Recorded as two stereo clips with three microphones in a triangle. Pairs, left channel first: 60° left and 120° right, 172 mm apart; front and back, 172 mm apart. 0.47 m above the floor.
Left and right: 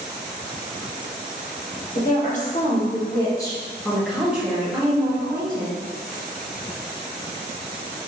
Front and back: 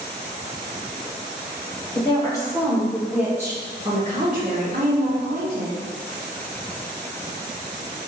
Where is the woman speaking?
50° left, 1.0 m; by 5.7 s straight behind, 1.5 m.